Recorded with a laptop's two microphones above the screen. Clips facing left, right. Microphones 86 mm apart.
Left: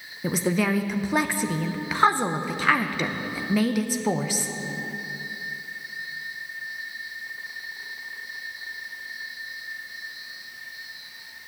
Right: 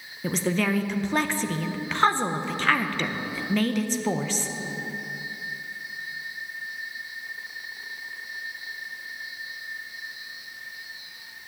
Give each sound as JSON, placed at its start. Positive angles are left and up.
{"t": 0.2, "sound": "a woman speaking", "side_deg": 10, "distance_m": 0.6}